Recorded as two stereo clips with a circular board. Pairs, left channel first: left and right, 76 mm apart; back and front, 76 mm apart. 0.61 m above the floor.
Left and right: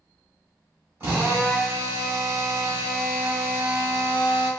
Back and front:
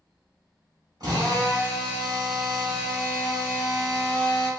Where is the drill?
35° right, 2.5 m.